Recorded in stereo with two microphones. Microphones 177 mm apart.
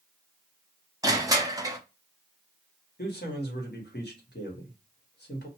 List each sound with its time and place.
1.0 s crushing: 20° right (ahead or behind), 0.7 m
3.0 s a man speaking: 80° left, 1.5 m